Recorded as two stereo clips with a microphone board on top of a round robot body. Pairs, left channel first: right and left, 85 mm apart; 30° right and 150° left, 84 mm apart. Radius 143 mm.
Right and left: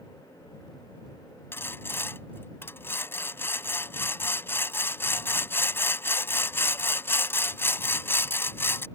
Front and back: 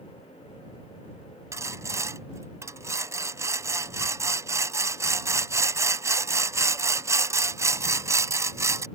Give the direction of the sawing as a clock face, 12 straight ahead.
5 o'clock.